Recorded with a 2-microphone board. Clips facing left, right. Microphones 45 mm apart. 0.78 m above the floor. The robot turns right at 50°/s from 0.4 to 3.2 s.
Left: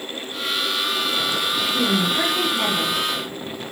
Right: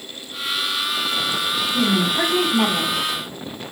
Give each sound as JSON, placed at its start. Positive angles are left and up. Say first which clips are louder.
{"t": 1.7, "sound": "a woman speaking", "louder": "right 2 dB", "azimuth_deg": 180, "distance_m": 1.6}